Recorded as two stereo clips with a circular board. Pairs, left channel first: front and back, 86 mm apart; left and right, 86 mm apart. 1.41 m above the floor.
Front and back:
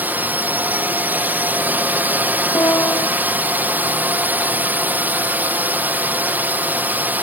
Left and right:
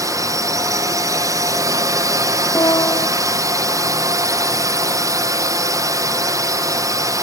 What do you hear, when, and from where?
0.0 s a drone: 115° right
2.5 s a piano: 50° left